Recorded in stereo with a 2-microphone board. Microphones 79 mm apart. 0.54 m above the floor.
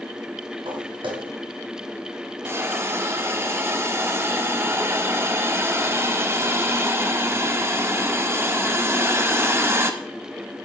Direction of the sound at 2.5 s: 35° right (ahead or behind).